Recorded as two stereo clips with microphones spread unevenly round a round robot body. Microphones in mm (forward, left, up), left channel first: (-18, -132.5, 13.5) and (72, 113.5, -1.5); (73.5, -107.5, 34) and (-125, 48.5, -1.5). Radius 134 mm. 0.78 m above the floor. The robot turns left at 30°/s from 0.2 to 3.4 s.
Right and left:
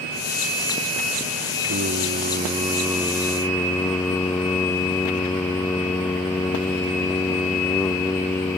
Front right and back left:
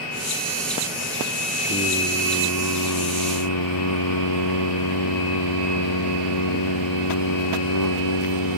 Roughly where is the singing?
Ahead left.